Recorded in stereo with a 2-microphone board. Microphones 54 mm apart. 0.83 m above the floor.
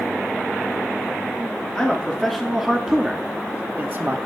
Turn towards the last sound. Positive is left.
turn(degrees=-45)  # may be behind; listen again after turning